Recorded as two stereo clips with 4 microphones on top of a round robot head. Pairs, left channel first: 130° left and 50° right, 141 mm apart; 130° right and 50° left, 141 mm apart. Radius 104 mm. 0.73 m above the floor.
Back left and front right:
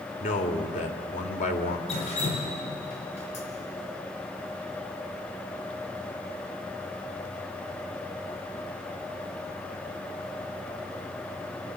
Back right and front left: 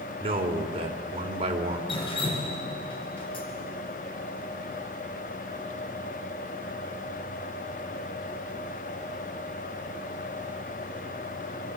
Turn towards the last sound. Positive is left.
turn(degrees=175)